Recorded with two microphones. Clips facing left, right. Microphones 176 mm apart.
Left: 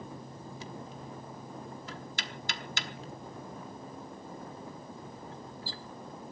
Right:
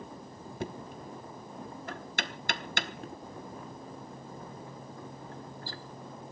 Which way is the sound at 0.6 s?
65° right (ahead or behind).